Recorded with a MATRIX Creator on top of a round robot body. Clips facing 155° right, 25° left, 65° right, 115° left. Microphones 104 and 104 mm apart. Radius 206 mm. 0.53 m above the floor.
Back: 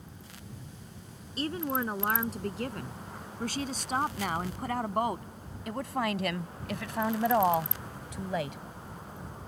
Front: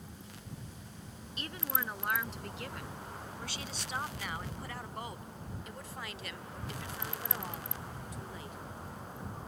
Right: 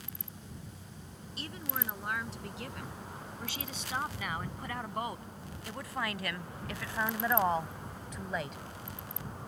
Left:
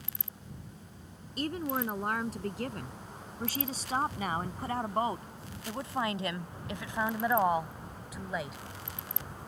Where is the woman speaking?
150° left; by 8.6 s 160° right.